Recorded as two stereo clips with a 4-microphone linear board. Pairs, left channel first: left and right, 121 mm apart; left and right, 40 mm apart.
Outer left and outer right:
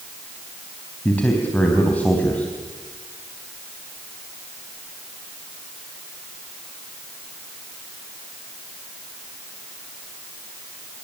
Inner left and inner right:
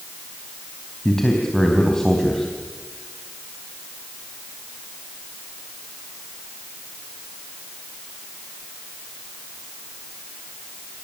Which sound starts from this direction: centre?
A man speaking, at 1.1 s.